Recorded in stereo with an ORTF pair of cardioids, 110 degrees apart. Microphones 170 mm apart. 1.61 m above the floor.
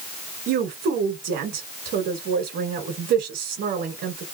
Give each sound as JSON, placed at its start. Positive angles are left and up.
{"t": 0.5, "sound": "a woman speaking", "azimuth_deg": -65, "distance_m": 1.4}